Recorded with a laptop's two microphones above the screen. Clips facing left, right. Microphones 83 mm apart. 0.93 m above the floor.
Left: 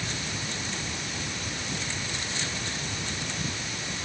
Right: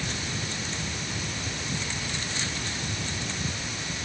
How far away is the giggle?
No giggle in this recording.